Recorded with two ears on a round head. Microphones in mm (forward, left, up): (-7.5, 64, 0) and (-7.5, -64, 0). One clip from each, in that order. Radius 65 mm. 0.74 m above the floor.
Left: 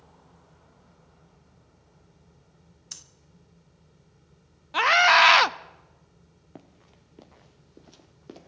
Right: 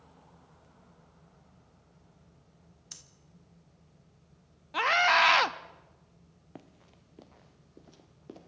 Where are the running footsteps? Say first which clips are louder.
Left 2 dB; 15° right (ahead or behind), 0.9 m; by 8.5 s 30° left (ahead or behind), 1.6 m.